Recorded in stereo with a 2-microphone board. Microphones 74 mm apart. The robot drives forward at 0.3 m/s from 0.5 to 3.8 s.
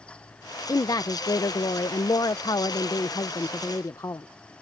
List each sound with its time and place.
0.7 s a woman speaking: 55° left (ahead or behind); by 4.3 s 50° left (ahead or behind)